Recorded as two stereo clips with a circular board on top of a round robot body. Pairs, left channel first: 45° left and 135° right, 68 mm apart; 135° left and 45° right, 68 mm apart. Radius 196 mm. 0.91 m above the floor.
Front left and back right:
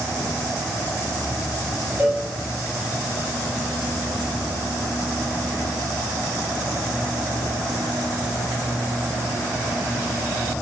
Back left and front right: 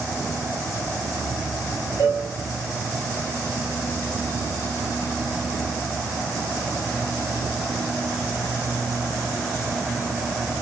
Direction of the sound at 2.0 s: 165° left.